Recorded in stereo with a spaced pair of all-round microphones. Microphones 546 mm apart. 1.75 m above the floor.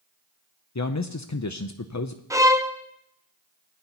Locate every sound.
0.8 s a man speaking: 35° left (ahead or behind), 0.6 m
2.3 s a violin: 5° right (ahead or behind), 0.6 m